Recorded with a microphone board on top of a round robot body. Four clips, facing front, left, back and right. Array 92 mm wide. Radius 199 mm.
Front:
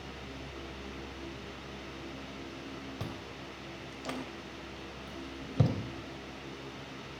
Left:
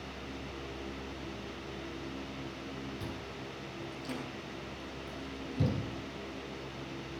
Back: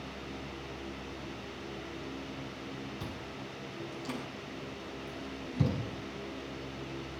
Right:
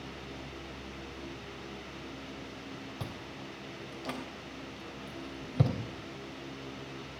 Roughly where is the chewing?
Ahead right.